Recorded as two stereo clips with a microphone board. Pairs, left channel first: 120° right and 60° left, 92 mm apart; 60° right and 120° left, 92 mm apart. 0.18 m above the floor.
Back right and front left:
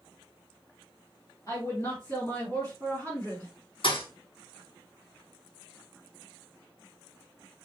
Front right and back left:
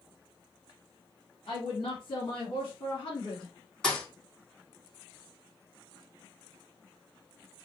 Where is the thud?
145° right, 1.5 m.